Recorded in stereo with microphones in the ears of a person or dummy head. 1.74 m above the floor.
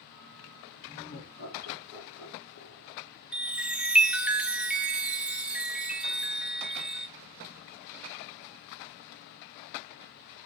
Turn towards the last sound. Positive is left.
turn(degrees=-5)  # may be behind; listen again after turning